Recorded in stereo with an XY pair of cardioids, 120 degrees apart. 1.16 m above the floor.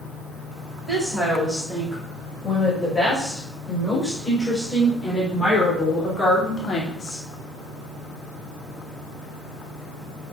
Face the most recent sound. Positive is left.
turn(degrees=45)